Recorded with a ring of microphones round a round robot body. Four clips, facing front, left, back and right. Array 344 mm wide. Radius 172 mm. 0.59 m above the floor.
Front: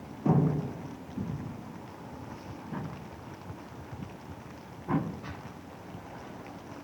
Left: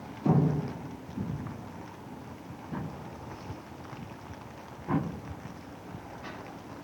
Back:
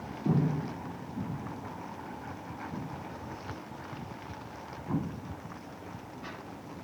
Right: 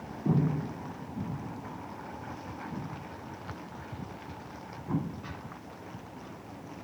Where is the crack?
No crack in this recording.